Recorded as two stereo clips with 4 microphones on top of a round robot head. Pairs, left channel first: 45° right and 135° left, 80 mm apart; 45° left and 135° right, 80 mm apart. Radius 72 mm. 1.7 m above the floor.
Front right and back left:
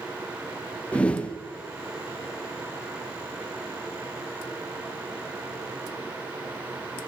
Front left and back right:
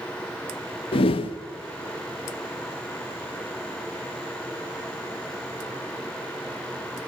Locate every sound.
0.9 s a whoosh: 35° left, 0.6 m